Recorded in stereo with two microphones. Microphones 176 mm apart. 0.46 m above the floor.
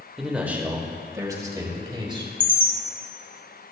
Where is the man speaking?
Centre (ahead or behind), 1.9 m; by 2.3 s 25° right (ahead or behind), 4 m.